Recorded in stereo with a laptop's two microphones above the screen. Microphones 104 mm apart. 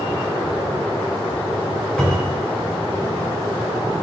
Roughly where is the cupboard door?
Centre.